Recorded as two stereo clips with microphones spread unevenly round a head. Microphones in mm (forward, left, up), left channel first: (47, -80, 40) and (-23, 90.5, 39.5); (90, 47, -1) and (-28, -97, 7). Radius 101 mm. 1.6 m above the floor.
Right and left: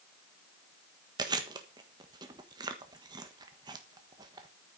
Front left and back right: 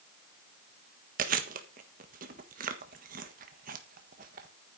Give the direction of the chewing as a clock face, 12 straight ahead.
6 o'clock.